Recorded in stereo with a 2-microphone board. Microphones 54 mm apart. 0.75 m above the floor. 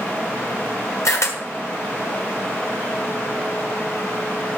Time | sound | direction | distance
1.1 | a camera shutter | 75° left (ahead or behind) | 1.5 m